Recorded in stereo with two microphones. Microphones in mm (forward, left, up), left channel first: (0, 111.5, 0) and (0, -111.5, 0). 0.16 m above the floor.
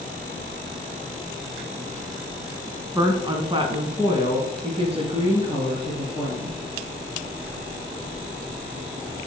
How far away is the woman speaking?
About 1.0 m.